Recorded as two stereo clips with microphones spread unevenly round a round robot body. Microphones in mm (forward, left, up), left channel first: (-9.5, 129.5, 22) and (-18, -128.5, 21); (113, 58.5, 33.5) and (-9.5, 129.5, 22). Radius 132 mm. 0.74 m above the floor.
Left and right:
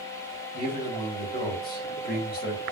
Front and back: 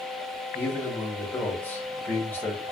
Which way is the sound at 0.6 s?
45° left.